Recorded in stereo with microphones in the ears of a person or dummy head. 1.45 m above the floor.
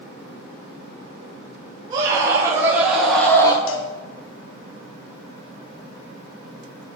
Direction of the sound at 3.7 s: 65° left (ahead or behind).